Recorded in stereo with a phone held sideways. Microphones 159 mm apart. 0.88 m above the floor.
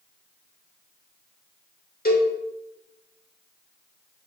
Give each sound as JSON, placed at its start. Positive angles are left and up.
{"t": 2.0, "sound": "a cowbell", "side_deg": 70, "distance_m": 1.0}